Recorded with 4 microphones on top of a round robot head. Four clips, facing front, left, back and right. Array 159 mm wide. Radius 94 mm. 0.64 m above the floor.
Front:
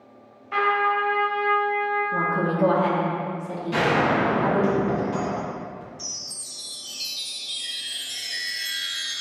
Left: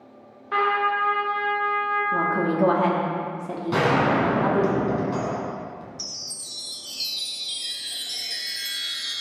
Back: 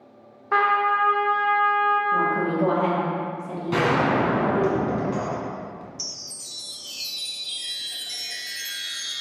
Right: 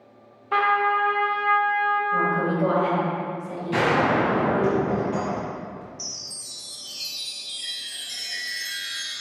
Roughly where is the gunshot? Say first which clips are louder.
Even, even; behind left.